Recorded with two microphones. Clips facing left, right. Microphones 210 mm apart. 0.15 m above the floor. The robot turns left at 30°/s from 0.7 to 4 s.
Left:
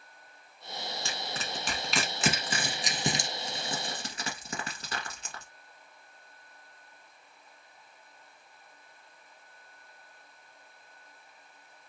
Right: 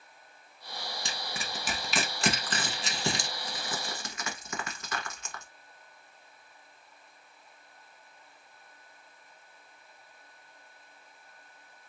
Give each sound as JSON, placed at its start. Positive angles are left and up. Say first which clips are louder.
{"t": 1.1, "sound": "crushing", "louder": "left 2 dB", "side_deg": -20, "distance_m": 1.0}